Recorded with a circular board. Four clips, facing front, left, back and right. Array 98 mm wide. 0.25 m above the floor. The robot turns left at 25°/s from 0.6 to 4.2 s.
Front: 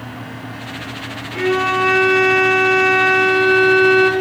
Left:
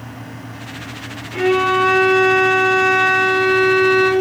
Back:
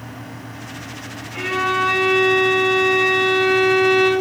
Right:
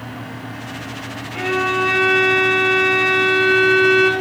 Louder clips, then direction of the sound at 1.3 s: Left 5 dB, front 4 dB; 60° left.